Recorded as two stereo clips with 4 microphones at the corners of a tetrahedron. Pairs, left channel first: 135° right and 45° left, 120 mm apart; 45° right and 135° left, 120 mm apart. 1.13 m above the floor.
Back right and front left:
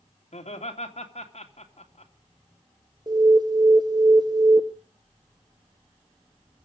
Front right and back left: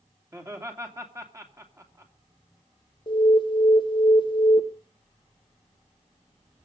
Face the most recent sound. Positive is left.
turn(degrees=-5)